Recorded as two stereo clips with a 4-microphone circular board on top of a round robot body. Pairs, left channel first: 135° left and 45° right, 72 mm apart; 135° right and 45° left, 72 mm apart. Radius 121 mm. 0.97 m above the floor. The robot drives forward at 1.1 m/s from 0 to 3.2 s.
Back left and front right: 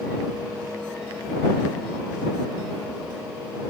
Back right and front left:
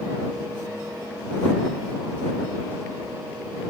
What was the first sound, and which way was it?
Only background noise.